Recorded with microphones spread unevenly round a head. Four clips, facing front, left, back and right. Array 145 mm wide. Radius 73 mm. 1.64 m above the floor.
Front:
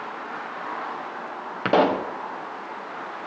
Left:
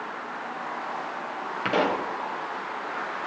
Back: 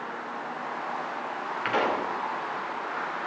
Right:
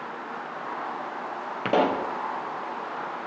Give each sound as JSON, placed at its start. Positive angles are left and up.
{"t": 1.6, "sound": "a pop", "azimuth_deg": -25, "distance_m": 1.0}